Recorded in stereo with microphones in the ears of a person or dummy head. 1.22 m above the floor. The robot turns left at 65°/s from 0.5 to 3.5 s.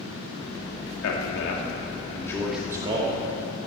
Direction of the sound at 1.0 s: 95° left.